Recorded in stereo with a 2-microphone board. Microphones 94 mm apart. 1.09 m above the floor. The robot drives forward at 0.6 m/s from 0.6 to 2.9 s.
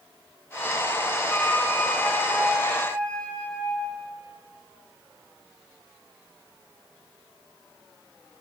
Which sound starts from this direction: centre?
A flute, at 1.3 s.